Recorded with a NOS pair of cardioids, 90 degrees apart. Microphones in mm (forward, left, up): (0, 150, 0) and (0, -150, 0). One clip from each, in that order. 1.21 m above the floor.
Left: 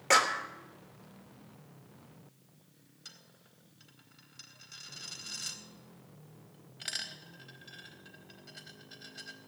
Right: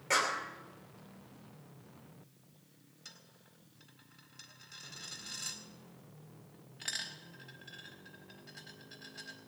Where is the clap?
55° left, 2.5 m.